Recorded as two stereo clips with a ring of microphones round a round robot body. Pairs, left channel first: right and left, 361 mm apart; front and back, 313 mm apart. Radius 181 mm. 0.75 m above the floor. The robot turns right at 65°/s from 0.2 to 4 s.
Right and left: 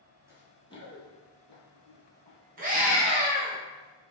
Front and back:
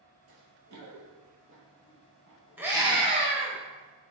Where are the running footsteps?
170° left, 1.0 m; by 3.0 s 20° right, 2.5 m.